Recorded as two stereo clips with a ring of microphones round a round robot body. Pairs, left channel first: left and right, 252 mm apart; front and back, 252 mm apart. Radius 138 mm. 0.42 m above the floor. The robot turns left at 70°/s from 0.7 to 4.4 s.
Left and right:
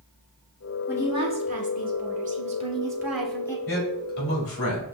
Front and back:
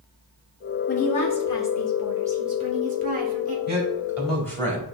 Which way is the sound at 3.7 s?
135° left.